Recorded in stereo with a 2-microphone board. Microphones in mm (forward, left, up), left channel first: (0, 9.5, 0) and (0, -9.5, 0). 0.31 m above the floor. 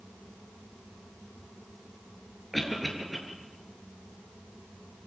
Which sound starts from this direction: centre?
A cough, at 2.5 s.